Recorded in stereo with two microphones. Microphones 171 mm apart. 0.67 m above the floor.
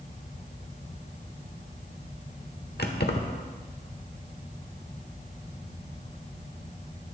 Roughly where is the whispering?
No whispering in this recording.